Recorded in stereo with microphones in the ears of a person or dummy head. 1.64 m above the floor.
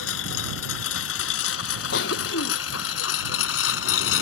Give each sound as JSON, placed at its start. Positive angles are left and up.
{"t": 0.0, "sound": "a lawn mower", "side_deg": 80}
{"t": 1.9, "sound": "a cough", "side_deg": 60}